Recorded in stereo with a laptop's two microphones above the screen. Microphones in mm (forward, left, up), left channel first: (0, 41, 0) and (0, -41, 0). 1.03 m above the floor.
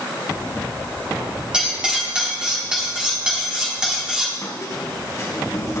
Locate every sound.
1.5 s cutlery clinking: 10° right (ahead or behind), 1.5 m
4.4 s a squeak: 40° left (ahead or behind), 2.5 m